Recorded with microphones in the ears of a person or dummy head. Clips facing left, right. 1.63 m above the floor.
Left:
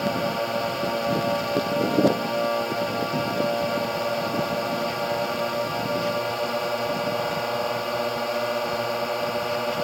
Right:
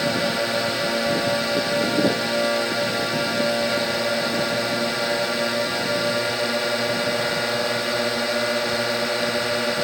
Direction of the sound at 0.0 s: 25° right (ahead or behind).